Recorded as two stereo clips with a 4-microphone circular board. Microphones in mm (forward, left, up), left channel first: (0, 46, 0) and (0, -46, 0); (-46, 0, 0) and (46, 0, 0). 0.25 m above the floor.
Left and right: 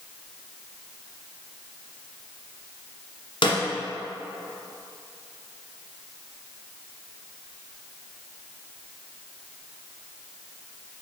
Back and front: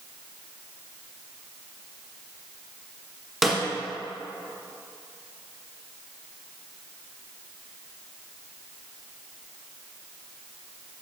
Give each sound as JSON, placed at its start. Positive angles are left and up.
{"t": 3.4, "sound": "a snare drum", "azimuth_deg": 90, "distance_m": 1.4}